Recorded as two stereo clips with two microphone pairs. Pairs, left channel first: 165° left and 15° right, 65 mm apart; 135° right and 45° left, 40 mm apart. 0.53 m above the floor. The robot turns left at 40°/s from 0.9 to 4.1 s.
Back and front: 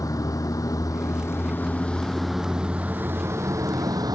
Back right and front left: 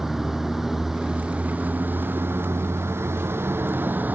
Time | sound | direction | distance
0.0 | a vehicle | 125° left | ?